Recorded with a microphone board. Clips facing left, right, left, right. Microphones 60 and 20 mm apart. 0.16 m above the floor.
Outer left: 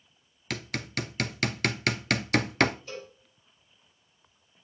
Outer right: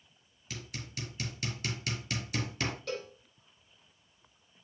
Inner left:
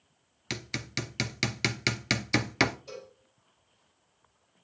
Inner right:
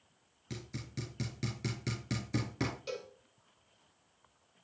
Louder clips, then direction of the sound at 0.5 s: Outer left 10 dB, inner left 10 dB; 70° left (ahead or behind).